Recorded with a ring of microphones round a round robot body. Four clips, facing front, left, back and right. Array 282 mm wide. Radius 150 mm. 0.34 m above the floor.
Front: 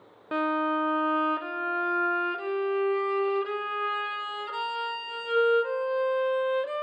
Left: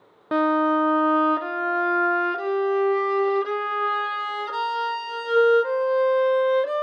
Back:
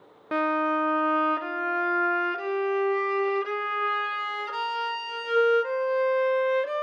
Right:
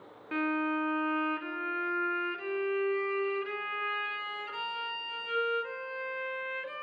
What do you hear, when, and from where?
0.3 s a violin: 95° left, 0.6 m